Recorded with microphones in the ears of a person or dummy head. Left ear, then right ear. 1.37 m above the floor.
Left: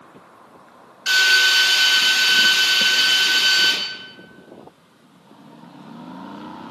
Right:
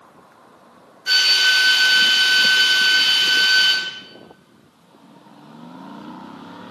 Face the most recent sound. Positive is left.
turn(degrees=80)